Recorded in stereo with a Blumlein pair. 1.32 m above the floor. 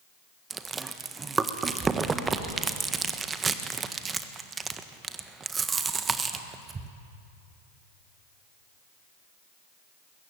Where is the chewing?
15° right, 1.5 m.